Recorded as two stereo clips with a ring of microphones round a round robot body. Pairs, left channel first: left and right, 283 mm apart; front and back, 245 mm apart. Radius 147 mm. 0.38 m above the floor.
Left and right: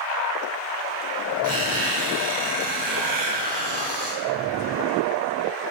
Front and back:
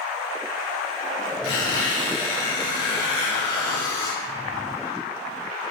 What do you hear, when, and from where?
1.4 s a squeak: 30° right, 3.5 m